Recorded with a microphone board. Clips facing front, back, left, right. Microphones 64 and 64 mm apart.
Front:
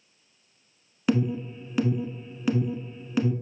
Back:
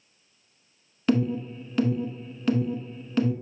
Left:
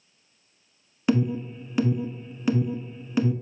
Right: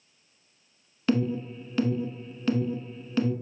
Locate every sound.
1.1 s an alarm: 55° left, 0.7 m